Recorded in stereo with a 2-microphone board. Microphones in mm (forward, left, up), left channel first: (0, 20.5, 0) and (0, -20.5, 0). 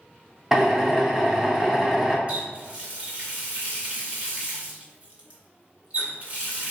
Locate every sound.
0.5 s a drill: 5° right (ahead or behind), 0.7 m
2.3 s a running tap: 30° right (ahead or behind), 1.0 m